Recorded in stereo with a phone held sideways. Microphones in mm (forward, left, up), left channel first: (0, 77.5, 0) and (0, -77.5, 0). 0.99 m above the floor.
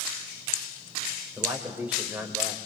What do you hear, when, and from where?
1.4 s a man speaking: 10° right (ahead or behind), 4.5 m